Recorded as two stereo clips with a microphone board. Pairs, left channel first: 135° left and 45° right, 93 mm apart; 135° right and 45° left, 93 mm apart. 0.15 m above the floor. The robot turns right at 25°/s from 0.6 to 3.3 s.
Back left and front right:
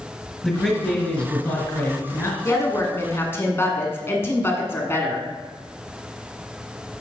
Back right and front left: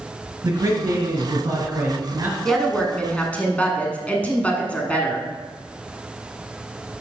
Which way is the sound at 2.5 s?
145° left.